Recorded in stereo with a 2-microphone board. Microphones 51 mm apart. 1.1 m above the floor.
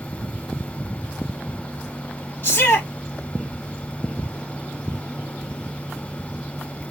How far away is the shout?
About 1.7 m.